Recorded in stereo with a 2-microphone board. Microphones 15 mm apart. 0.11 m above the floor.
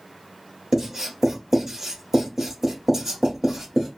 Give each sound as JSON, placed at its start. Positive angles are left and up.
{"t": 0.7, "sound": "writing", "side_deg": -30, "distance_m": 1.6}